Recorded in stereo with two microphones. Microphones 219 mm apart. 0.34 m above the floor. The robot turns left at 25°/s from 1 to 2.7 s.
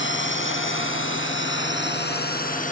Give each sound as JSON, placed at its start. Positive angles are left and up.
{"t": 0.0, "sound": "a drone", "side_deg": 60}